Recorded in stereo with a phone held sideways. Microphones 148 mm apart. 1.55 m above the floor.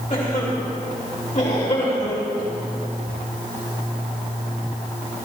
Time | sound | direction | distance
0.1 | a cough | 60° left (ahead or behind) | 3.5 m